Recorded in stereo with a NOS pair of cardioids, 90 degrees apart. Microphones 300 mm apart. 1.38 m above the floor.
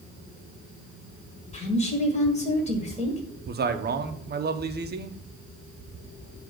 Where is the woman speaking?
20° left, 1.5 m.